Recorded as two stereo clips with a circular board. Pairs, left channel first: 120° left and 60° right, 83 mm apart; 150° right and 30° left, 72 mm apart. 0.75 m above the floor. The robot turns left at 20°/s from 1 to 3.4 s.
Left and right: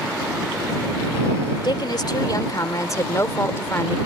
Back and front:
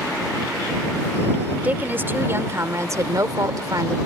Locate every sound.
1.6 s a woman speaking: 95° left; by 4.0 s 60° left